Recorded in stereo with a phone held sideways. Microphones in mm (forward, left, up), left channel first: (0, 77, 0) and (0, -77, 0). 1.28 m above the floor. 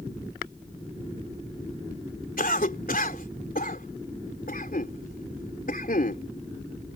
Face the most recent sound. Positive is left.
turn(degrees=70)  # may be behind; listen again after turning